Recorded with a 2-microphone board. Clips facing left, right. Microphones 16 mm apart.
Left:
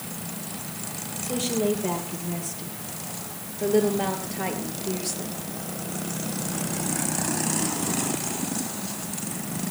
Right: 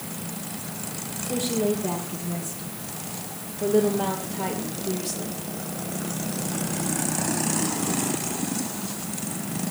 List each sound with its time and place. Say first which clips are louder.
1.2 s a woman speaking: even; 55° left (ahead or behind), 7 m; by 5.4 s 30° left (ahead or behind), 5 m